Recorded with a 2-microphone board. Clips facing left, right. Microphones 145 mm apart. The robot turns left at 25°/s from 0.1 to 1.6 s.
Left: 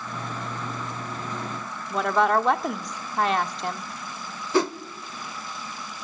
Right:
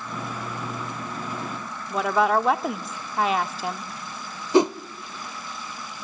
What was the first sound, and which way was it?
A woman speaking, 5° right (ahead or behind).